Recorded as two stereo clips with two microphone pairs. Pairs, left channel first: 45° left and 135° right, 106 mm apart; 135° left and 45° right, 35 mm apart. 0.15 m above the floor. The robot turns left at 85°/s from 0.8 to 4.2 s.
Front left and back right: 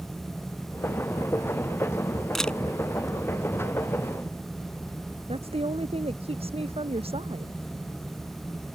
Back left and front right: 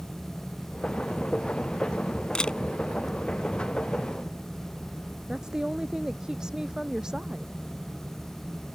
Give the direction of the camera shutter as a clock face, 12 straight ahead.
8 o'clock.